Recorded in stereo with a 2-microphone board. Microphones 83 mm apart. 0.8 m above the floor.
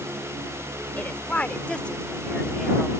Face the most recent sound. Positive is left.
turn(degrees=0)  # may be behind; listen again after turning